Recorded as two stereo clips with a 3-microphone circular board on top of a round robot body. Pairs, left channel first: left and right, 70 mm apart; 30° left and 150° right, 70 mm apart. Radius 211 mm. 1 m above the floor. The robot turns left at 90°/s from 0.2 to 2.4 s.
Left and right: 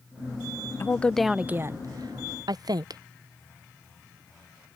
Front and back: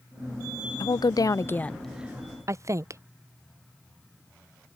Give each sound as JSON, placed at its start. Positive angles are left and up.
{"t": 0.8, "sound": "a woman speaking", "azimuth_deg": 35}